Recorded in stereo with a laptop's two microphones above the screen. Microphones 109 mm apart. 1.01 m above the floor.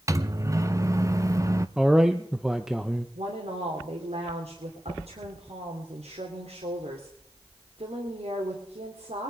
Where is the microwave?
30° right (ahead or behind), 0.9 m.